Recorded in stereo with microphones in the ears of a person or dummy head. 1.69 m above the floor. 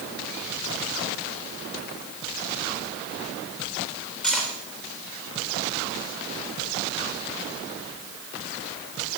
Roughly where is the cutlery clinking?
Centre.